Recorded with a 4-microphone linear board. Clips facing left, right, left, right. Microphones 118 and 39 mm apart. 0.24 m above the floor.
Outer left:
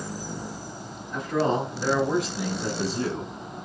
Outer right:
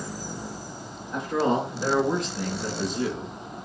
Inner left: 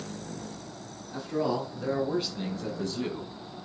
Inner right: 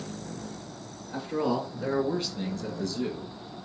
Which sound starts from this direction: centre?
A man speaking, at 1.1 s.